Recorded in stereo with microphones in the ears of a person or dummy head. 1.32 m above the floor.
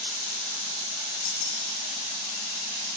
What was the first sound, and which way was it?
Keys jangling, 65° left (ahead or behind).